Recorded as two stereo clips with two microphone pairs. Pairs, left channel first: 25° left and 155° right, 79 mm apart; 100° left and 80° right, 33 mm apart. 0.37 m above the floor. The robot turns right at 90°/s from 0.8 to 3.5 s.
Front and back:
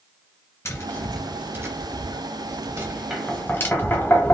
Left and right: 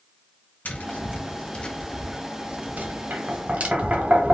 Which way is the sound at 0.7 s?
80° left.